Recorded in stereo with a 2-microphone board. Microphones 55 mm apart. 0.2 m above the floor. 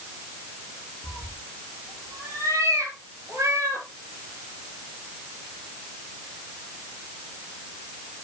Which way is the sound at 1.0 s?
70° right (ahead or behind).